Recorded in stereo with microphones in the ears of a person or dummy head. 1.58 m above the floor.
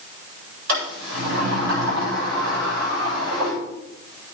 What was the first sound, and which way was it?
A sliding door, 75° right (ahead or behind).